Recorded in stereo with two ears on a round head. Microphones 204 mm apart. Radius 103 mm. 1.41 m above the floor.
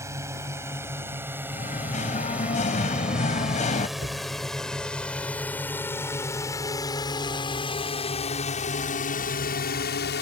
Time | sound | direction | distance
0.0 | a drone | 15° right (ahead or behind) | ?
1.5 | singing | 30° left (ahead or behind) | ?
4.0 | a cupboard door | 45° right (ahead or behind) | ?